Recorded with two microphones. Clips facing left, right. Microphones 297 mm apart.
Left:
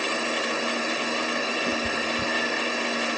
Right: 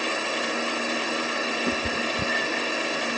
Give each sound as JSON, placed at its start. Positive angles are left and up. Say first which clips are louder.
{"t": 1.7, "sound": "a cat meowing", "louder": "even", "side_deg": -20, "distance_m": 0.6}